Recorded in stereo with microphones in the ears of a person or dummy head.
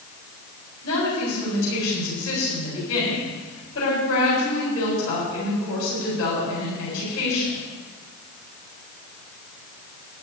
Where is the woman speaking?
75° left (ahead or behind), 8 m.